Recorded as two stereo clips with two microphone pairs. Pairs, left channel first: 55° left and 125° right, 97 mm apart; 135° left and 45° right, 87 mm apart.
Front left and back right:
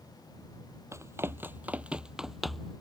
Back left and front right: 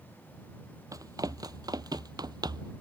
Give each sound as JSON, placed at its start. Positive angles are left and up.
{"t": 0.9, "sound": "running footsteps", "azimuth_deg": -75}